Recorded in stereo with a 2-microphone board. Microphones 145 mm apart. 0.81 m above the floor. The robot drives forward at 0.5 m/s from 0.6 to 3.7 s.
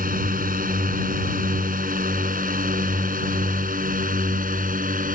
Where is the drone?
75° right (ahead or behind); by 5.2 s 70° right (ahead or behind).